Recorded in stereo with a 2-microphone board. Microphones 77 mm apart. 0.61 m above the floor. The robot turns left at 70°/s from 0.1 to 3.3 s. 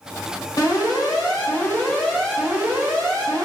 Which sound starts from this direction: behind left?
An alarm, at 0.6 s.